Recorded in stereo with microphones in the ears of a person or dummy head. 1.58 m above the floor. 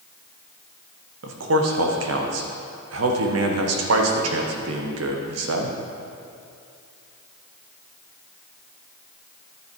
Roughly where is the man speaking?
Right.